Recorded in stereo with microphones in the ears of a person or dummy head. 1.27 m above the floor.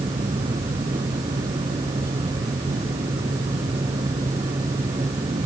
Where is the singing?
No singing in this recording.